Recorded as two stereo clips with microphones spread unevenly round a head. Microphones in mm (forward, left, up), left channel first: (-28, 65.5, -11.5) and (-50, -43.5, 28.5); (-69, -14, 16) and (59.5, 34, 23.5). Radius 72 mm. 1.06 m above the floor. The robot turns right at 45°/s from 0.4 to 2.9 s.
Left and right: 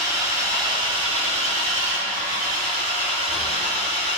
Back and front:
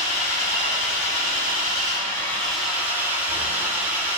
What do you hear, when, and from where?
0.0 s an engine running: 165° right, 5 m; by 4.2 s 55° right, 5 m